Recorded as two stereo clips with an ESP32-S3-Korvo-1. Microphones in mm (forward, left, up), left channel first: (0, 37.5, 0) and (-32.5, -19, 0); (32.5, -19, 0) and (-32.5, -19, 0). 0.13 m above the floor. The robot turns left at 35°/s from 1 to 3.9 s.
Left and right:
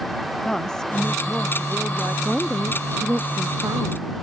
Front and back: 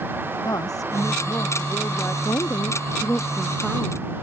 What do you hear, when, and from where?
0.4 s a woman speaking: 20° right; by 2.1 s 60° right
2.2 s a woman speaking: 30° right; by 4.1 s 85° right